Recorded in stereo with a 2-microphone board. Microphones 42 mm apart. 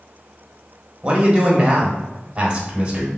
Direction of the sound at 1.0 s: 25° right (ahead or behind).